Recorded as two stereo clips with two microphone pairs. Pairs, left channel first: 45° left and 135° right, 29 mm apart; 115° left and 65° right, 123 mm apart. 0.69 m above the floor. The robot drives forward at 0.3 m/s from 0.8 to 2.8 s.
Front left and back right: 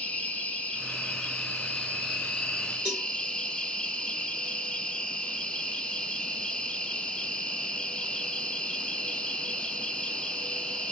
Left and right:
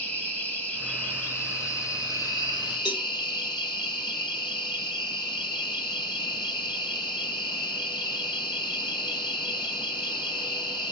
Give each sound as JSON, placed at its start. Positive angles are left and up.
{"t": 0.0, "sound": "an insect", "azimuth_deg": 45, "distance_m": 1.0}
{"t": 2.9, "sound": "a cowbell", "azimuth_deg": 165, "distance_m": 1.8}